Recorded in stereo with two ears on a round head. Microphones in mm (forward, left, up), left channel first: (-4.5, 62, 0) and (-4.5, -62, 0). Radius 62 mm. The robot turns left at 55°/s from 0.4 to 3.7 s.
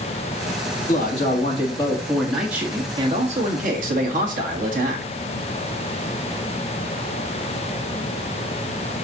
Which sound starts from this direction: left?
A man speaking, at 0.9 s.